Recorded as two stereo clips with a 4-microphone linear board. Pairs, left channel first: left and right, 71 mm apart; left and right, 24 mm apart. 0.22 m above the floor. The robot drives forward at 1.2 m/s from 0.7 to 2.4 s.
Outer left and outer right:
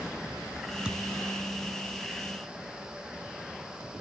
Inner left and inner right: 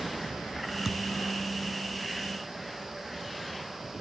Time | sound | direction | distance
0.8 | a thud | 10° right (ahead or behind) | 1.1 m